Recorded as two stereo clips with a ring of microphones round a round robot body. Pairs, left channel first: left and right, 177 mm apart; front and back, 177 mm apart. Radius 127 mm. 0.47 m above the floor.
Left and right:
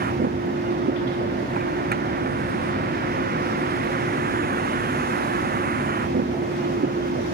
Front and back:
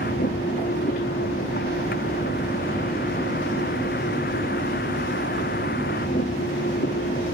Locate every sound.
0.0 s a vehicle: 60° right